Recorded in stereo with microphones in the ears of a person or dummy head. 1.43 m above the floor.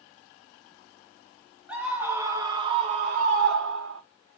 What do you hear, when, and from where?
1.7 s a scream: 10° right (ahead or behind), 1.9 m; by 4.0 s 90° right, 1.2 m